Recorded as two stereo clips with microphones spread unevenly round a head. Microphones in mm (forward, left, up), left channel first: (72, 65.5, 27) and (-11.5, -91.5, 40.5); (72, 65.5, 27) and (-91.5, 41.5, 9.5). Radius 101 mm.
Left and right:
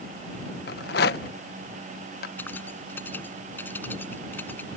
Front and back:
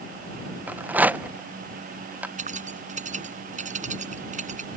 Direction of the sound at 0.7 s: 105° left.